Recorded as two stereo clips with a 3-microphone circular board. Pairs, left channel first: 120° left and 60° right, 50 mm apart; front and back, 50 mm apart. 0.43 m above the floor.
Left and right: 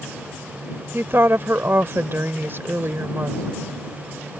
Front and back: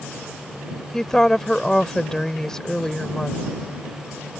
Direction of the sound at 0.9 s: 80° right.